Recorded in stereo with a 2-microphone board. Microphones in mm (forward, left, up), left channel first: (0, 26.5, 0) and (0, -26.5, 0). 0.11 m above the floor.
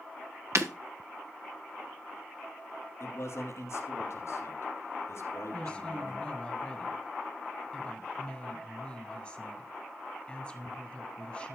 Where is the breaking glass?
65° right (ahead or behind), 1.3 m.